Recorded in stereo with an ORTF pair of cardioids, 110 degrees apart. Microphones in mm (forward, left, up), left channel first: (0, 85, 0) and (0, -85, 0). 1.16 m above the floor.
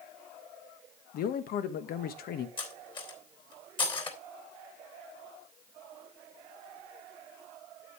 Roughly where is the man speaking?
Ahead left.